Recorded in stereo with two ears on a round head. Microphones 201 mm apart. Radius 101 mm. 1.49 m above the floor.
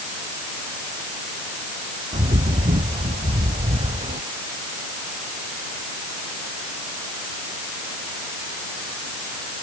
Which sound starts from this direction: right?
A bird, at 2.1 s.